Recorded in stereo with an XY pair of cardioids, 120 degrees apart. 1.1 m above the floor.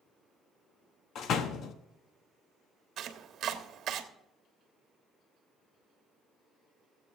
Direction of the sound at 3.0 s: 55° right.